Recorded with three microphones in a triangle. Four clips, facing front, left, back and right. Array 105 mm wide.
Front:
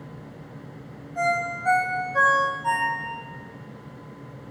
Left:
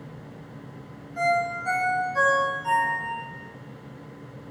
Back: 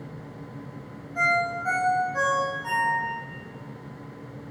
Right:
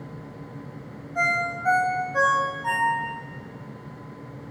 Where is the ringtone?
85° right, 4 m.